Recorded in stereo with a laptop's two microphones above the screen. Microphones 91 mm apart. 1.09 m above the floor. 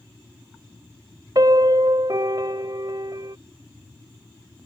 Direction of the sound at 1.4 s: 45° right (ahead or behind).